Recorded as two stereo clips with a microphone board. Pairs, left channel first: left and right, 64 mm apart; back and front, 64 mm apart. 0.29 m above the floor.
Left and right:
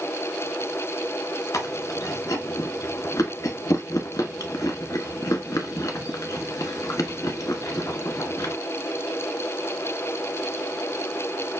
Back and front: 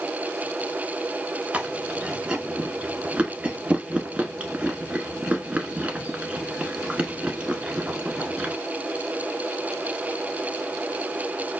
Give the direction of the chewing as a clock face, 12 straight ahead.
10 o'clock.